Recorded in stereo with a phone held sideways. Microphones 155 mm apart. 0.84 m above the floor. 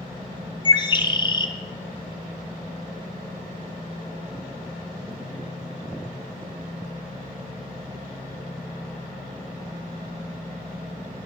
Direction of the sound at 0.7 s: 30° left (ahead or behind).